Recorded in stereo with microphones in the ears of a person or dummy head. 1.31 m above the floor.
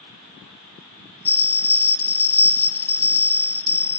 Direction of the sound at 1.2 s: 10° left (ahead or behind).